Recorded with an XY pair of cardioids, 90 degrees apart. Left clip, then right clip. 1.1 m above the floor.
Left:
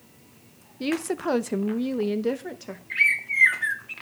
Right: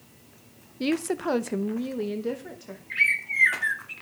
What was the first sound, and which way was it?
A woman speaking, 15° right.